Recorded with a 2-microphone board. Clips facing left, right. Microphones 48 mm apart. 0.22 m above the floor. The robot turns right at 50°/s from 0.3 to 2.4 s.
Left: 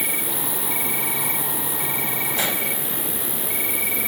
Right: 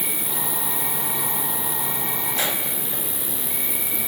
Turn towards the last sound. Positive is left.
turn(degrees=140)